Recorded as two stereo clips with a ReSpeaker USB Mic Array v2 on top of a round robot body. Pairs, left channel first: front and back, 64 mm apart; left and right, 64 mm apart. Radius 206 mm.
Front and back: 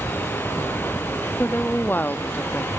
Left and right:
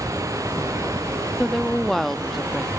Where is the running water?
60° right.